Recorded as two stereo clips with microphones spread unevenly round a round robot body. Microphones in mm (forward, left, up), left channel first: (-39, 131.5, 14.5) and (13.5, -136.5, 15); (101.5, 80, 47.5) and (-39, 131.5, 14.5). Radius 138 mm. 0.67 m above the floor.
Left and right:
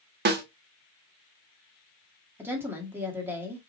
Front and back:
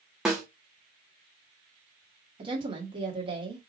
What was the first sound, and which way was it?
A snare drum, 125° right.